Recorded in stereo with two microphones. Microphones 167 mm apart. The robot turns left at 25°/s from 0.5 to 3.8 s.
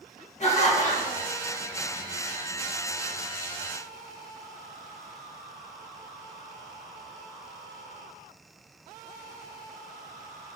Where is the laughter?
40° left (ahead or behind), 1.1 m; by 1.3 s 45° left (ahead or behind), 1.1 m.